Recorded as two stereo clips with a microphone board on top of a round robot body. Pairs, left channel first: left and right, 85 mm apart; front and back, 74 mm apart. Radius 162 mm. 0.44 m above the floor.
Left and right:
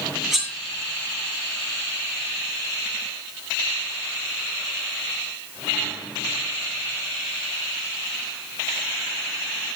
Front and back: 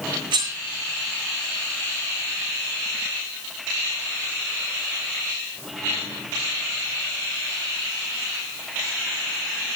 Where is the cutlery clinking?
Straight behind, 5.5 m.